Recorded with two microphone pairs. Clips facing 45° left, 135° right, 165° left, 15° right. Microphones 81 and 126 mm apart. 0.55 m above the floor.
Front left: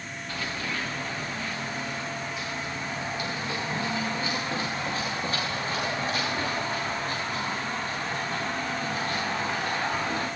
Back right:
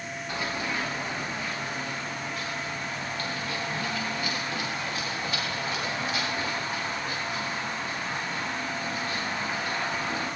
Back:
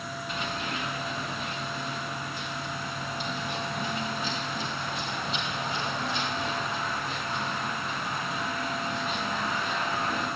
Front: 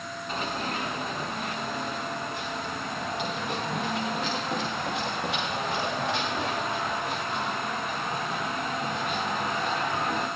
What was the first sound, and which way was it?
Running footsteps, 60° right.